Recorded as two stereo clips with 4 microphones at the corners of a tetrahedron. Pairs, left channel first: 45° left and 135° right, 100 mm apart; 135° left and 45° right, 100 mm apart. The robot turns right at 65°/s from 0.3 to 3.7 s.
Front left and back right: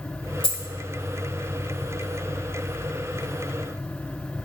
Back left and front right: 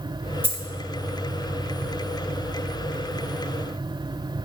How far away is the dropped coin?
About 0.8 m.